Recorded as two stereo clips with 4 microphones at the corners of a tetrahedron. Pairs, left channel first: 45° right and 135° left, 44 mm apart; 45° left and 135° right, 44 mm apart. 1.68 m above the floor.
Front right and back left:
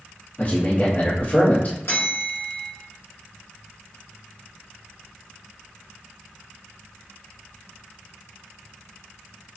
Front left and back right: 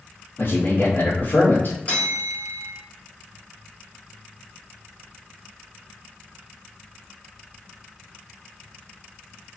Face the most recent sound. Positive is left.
turn(degrees=-10)